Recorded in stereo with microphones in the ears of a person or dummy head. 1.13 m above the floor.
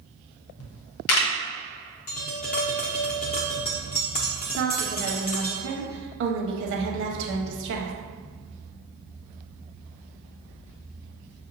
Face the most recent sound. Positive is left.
turn(degrees=-65)  # may be behind; listen again after turning